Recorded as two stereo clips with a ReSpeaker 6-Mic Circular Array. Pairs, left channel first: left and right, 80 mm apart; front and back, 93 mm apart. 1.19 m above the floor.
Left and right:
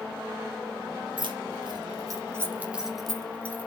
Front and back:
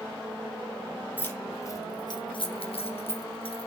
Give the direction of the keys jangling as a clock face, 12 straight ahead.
2 o'clock.